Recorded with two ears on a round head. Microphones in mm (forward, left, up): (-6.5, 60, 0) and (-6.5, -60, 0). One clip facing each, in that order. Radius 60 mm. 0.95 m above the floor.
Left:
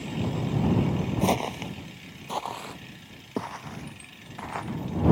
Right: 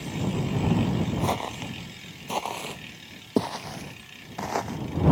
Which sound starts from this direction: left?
Footsteps, at 1.2 s.